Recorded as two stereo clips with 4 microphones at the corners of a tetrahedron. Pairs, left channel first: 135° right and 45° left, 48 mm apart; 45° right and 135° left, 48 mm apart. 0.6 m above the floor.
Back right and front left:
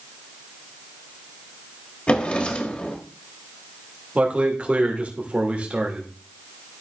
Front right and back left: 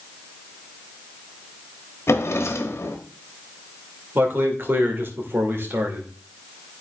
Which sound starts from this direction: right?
A drawer, at 2.1 s.